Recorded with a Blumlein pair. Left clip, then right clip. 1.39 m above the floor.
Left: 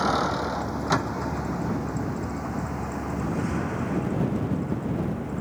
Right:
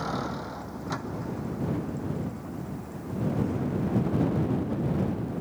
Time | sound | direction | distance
0.0 | a vehicle | 25° left | ?